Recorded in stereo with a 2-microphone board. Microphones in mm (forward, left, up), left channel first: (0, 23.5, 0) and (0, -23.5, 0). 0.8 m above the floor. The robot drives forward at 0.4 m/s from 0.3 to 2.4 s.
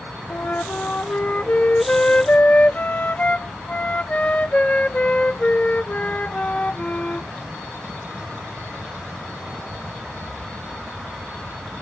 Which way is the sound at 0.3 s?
40° left (ahead or behind).